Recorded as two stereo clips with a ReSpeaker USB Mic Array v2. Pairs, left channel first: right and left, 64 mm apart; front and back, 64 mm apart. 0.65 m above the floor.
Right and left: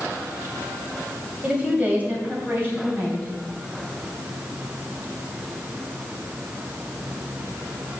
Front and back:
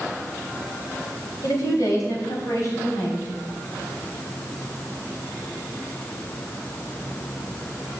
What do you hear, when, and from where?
1.4 s a woman speaking: 20° left, 2.5 m; by 3.3 s 35° left, 3.5 m